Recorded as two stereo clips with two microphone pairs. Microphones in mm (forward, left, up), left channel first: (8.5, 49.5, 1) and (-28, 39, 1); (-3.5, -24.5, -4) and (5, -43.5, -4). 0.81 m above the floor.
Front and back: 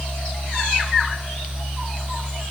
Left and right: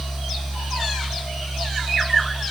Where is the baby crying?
No baby crying in this recording.